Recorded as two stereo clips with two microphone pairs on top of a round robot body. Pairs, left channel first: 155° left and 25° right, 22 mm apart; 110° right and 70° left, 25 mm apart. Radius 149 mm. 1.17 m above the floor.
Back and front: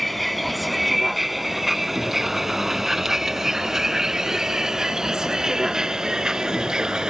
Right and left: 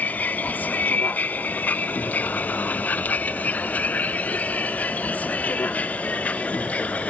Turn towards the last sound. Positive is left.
turn(degrees=-80)